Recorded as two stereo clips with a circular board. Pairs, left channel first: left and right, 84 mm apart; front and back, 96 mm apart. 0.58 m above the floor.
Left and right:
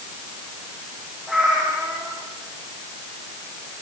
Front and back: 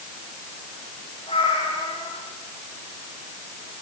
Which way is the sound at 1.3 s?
Straight ahead.